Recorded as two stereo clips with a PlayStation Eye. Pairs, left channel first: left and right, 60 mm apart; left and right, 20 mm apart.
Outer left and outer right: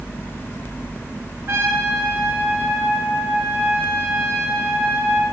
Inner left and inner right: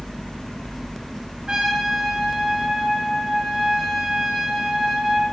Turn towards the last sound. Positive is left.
turn(degrees=-45)  # may be behind; listen again after turning